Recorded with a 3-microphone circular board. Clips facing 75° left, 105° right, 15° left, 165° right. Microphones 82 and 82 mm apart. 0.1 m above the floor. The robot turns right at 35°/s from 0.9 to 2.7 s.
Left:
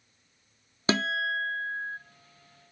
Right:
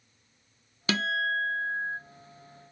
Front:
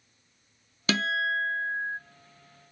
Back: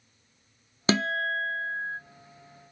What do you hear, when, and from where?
0.9 s a guitar: 135° left, 0.5 m; by 2.0 s 175° left, 0.5 m